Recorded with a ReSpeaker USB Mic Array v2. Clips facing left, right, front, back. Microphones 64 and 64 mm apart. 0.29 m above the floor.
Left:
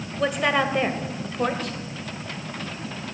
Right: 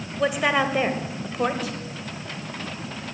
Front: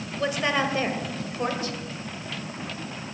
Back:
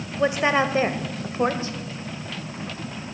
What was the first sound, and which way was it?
A woman speaking, 170° right.